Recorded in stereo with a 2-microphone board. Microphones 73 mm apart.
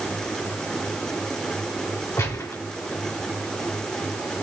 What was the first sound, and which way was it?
A gunshot, 40° left (ahead or behind).